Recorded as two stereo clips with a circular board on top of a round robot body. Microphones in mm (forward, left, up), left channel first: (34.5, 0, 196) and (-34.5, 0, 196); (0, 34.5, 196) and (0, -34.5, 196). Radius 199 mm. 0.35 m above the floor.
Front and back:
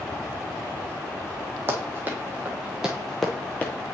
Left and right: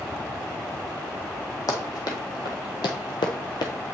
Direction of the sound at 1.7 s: 120° left.